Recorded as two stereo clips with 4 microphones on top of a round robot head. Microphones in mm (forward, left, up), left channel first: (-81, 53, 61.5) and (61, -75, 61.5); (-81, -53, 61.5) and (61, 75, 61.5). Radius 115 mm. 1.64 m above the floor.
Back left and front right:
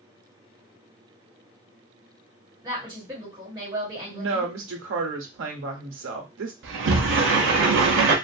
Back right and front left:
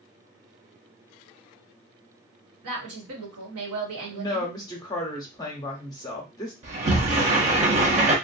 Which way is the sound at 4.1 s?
65° right.